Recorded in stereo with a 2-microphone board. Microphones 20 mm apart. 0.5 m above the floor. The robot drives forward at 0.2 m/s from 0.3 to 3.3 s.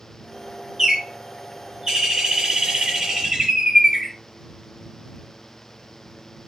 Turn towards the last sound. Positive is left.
turn(degrees=-45)  # may be behind; listen again after turning